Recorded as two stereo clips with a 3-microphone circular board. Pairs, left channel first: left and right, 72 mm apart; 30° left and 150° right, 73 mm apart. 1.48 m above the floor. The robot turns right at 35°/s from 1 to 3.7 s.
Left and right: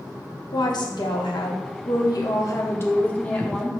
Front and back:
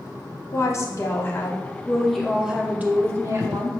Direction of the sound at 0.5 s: 80° left.